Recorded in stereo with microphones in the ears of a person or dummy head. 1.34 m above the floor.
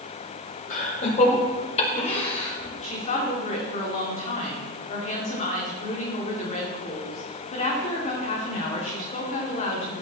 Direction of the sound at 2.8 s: 35° left (ahead or behind).